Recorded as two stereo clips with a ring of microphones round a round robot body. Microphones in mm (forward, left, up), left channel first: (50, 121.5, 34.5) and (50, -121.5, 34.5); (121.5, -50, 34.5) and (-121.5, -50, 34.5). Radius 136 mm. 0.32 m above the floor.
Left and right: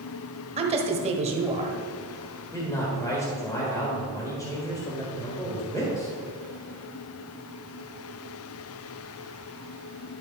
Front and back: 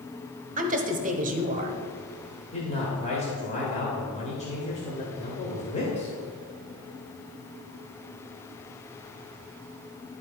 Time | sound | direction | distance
0.6 | a woman speaking | 140° right | 1.2 m
2.5 | a man speaking | 25° left | 1.7 m